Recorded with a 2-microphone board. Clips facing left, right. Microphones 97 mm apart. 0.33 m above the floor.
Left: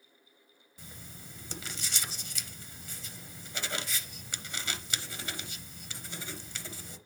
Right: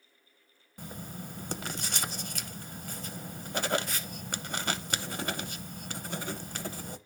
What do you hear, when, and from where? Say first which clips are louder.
0.8 s writing: right 9 dB; 55° right (ahead or behind), 0.8 m